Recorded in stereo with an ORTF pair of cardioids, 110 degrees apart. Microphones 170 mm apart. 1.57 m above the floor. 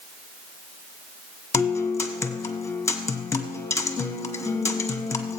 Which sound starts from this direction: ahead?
A guitar, at 1.5 s.